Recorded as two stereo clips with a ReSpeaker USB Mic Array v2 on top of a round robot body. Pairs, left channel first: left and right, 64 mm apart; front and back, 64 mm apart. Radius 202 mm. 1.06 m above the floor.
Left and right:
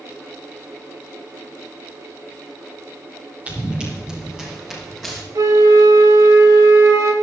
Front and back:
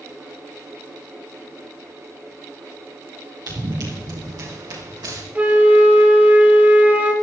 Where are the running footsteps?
155° right, 3 m; by 5.2 s straight behind, 4.5 m.